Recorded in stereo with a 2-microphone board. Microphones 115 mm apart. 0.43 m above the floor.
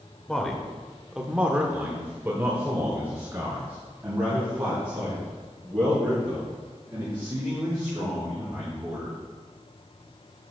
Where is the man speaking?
5° left (ahead or behind), 1.3 m; by 9.1 s 15° right (ahead or behind), 6.5 m.